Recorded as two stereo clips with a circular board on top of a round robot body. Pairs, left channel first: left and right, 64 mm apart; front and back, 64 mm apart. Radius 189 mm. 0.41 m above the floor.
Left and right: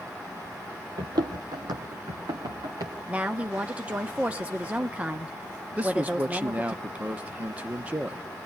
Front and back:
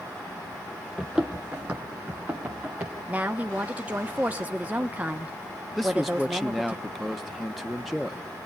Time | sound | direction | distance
1.0 | running footsteps | 95° right | 0.5 m
3.1 | a woman speaking | 140° right | 1.2 m
5.8 | a man speaking | 90° right | 1.2 m